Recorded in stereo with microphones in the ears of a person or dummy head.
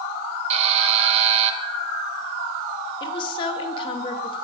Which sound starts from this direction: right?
A buzzer, at 0.5 s.